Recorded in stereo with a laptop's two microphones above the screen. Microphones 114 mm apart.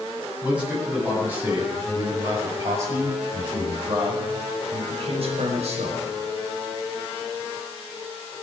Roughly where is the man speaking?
Centre.